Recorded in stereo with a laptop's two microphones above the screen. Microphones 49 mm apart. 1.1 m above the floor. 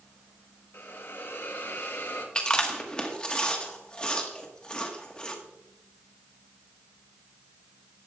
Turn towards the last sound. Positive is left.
turn(degrees=20)  # may be behind; listen again after turning